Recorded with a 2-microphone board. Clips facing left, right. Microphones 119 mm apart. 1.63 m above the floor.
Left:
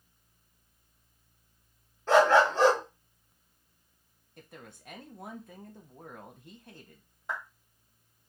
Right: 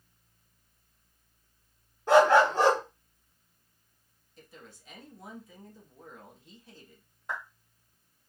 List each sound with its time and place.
2.1 s a dog barking: 15° right (ahead or behind), 1.1 m
4.4 s a woman speaking: 55° left (ahead or behind), 0.8 m
7.3 s a clap: 5° left (ahead or behind), 1.7 m